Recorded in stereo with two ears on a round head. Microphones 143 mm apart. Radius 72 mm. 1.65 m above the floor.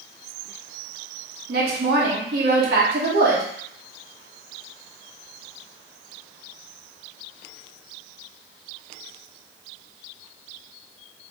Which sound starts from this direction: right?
A woman speaking, at 1.5 s.